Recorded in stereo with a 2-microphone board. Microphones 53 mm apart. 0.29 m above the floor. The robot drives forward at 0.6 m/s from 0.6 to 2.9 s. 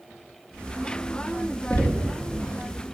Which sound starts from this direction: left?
Knocking, at 1.7 s.